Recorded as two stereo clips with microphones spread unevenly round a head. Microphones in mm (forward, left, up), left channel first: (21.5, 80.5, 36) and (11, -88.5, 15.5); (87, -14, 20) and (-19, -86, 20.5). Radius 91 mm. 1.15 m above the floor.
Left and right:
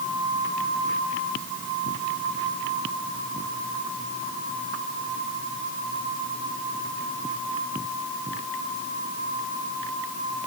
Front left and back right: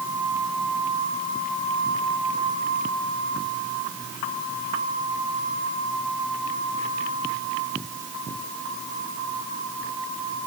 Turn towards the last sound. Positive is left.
No sound to turn to.